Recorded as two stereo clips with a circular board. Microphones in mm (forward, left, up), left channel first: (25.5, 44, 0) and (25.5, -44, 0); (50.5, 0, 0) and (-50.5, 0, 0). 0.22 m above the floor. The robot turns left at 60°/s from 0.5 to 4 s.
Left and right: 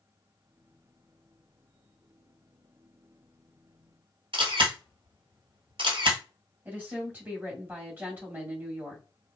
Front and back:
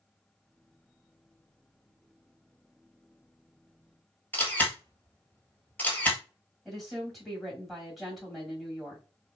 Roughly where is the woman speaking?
Right.